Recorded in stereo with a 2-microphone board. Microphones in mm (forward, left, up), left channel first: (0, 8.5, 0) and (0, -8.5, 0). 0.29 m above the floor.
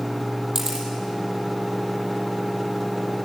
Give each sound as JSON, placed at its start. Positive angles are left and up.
{"t": 0.6, "sound": "a camera shutter", "side_deg": -25, "distance_m": 5.5}